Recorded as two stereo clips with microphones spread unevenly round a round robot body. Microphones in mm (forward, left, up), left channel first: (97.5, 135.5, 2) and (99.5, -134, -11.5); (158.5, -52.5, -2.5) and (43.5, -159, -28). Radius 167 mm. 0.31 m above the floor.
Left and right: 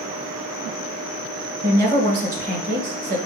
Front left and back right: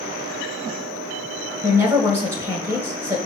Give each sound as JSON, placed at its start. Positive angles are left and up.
{"t": 1.6, "sound": "a woman speaking", "azimuth_deg": -100, "distance_m": 1.5}